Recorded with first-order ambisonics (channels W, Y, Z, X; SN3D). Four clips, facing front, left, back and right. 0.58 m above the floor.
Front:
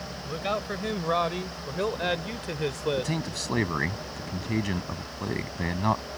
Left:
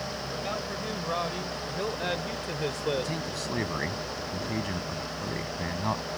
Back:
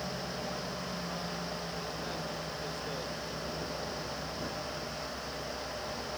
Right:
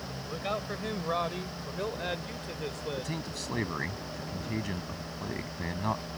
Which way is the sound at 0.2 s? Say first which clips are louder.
Right 2 dB, front 7 dB; 15° right.